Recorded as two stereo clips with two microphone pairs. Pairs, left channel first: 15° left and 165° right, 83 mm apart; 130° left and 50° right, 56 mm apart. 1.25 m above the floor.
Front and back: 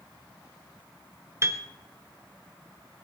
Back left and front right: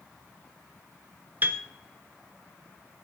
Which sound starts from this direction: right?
A piano, at 1.4 s.